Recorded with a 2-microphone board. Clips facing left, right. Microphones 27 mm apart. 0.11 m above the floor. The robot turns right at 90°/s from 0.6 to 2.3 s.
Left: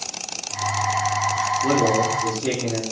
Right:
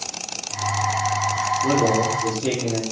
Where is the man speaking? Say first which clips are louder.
Even; 140° left, 5 m; by 2.8 s 155° right, 5 m.